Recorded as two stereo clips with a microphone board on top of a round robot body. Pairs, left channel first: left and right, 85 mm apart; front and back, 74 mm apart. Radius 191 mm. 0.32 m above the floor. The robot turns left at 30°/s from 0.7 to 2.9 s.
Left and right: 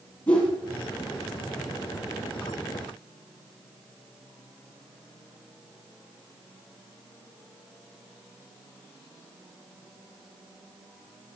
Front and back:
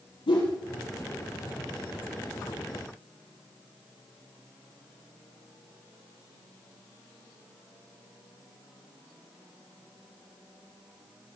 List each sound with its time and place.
0.3 s a whoosh: 15° left, 3.5 m